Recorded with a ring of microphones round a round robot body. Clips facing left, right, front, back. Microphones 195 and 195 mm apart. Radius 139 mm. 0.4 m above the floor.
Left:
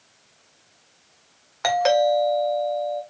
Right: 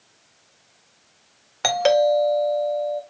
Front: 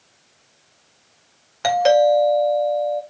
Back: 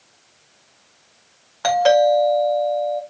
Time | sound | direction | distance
1.6 | a doorbell | 55° right | 1.9 m